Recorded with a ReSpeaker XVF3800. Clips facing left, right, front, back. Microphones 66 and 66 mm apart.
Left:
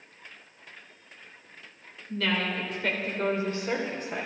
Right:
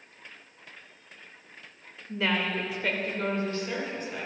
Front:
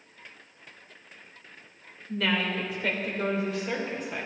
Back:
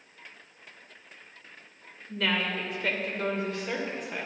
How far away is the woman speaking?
About 1.2 m.